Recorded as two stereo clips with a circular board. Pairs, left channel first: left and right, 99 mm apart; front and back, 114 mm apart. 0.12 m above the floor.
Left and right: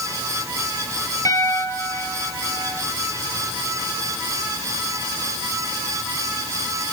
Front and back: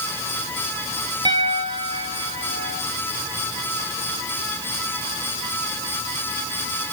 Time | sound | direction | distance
1.2 | a piano | 140° left | 2.5 m